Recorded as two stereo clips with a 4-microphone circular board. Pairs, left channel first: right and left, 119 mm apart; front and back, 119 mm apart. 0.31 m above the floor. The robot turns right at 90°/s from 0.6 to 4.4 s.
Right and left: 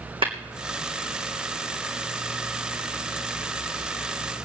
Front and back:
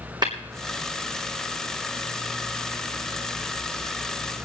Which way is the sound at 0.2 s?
130° left.